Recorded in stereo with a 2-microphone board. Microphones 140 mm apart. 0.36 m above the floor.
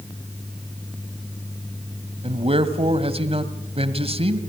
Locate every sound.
2.2 s a man speaking: 45° right (ahead or behind), 1.7 m